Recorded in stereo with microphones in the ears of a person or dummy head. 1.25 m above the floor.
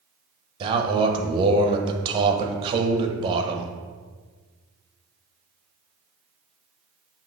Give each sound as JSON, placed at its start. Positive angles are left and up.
{"t": 0.6, "sound": "a man speaking", "side_deg": -35, "distance_m": 0.9}